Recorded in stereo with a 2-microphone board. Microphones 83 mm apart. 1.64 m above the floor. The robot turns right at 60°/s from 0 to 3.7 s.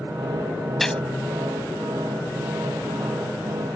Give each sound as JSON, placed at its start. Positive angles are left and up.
{"t": 0.8, "sound": "a gunshot", "side_deg": 0}